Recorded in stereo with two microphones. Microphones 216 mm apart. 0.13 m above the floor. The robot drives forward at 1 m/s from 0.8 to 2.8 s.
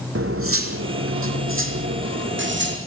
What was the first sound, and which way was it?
Cutlery clinking, 75° right (ahead or behind).